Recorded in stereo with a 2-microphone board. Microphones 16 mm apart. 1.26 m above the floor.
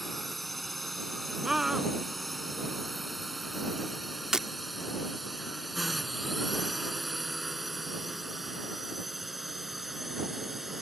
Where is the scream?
30° right (ahead or behind).